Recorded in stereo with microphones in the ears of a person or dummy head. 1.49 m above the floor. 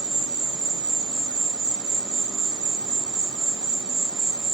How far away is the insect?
About 1.1 m.